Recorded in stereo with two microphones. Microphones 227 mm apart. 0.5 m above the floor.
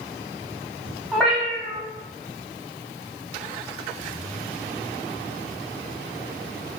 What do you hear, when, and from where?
1.1 s a cat meowing: centre (ahead or behind), 0.7 m